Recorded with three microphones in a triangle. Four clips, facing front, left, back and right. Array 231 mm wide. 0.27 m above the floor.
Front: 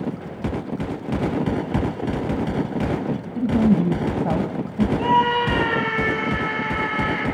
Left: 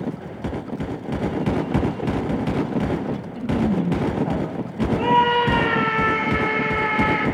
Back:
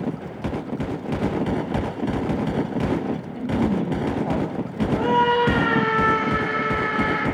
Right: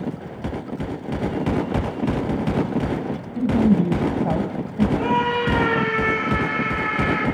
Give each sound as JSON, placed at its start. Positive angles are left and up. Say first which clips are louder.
{"t": 3.4, "sound": "a woman speaking", "louder": "right 5 dB, front 5 dB", "azimuth_deg": -40, "distance_m": 2.0}
{"t": 5.0, "sound": "a scream", "louder": "left 8 dB, back 1 dB", "azimuth_deg": 135, "distance_m": 6.0}